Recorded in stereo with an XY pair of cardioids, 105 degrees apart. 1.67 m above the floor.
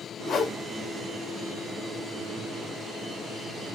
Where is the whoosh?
50° left, 1.1 m.